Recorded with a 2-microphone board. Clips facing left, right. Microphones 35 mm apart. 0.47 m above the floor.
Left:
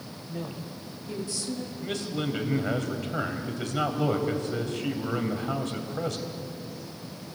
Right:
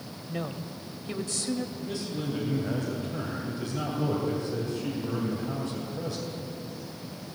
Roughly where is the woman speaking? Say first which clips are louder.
Right 2 dB; right.